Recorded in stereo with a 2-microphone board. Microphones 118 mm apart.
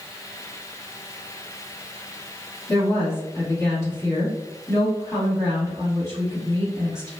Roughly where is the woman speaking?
Left.